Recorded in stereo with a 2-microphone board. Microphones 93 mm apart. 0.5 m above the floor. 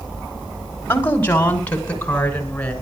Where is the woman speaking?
25° left (ahead or behind), 2.5 m; by 2.7 s 10° left (ahead or behind), 5 m.